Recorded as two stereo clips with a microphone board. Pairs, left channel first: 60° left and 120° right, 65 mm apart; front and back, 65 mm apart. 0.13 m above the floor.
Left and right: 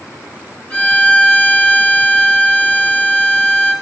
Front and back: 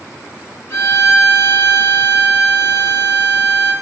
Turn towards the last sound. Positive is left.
turn(degrees=-5)